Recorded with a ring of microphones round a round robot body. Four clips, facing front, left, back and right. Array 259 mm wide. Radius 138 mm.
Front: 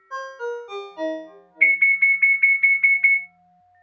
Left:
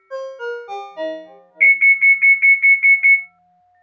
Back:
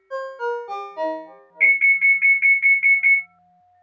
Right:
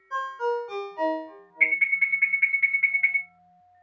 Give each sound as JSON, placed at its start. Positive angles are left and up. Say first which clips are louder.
{"t": 0.1, "sound": "a ringtone", "louder": "left 1 dB, back 4 dB", "azimuth_deg": 130, "distance_m": 1.3}
{"t": 1.6, "sound": "an alarm", "louder": "left 11 dB, back 1 dB", "azimuth_deg": 115, "distance_m": 2.0}